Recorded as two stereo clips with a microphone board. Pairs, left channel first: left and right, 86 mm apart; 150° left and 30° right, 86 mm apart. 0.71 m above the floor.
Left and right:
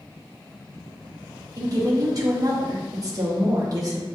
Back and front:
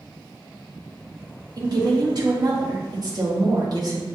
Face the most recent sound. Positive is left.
turn(degrees=-55)